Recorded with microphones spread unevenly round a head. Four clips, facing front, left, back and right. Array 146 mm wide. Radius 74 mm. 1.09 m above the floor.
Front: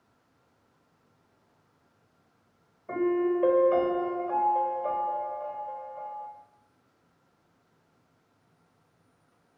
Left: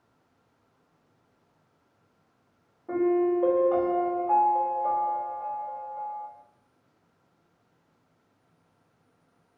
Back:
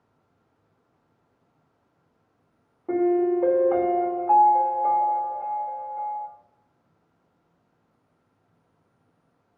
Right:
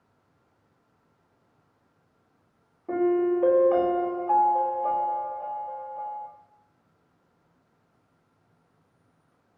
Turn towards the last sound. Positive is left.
turn(degrees=-170)